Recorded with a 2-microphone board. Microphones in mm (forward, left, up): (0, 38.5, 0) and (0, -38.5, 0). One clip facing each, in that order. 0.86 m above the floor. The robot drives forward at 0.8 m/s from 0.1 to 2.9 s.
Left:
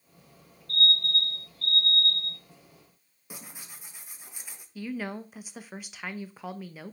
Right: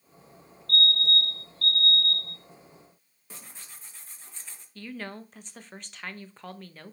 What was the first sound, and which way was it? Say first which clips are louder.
A fire alarm: right 2 dB; 65° right (ahead or behind).